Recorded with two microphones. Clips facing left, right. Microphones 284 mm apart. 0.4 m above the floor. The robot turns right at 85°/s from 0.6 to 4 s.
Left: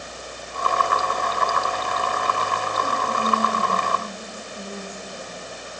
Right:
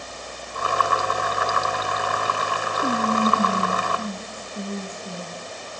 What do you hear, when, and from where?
2.8 s whispering: 130° right, 3 m; by 5.4 s 30° right, 3 m